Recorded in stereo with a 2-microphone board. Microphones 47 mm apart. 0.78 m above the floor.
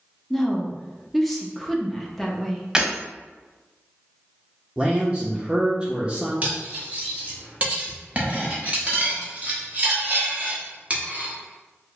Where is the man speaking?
15° right (ahead or behind), 0.6 m.